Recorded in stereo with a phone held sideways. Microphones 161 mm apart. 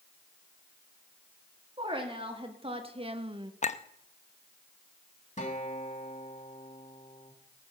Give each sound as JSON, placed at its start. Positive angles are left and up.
{"t": 1.8, "sound": "a woman speaking", "side_deg": -35, "distance_m": 2.5}
{"t": 3.6, "sound": "a clink", "side_deg": 45, "distance_m": 0.6}
{"t": 5.4, "sound": "a guitar", "side_deg": 50, "distance_m": 2.0}